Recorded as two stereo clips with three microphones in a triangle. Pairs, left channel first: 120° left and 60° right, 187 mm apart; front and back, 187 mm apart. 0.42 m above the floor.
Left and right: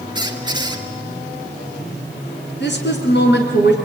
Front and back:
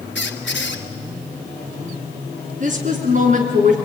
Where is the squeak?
5° left, 1.8 m.